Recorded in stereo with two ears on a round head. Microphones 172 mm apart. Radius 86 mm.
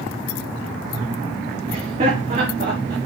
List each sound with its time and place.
1.7 s laughter: 30° right (ahead or behind), 2.5 m; by 3.0 s 50° right (ahead or behind), 1.9 m